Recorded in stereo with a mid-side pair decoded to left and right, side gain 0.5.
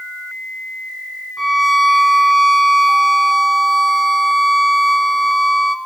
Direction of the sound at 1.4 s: 10° right.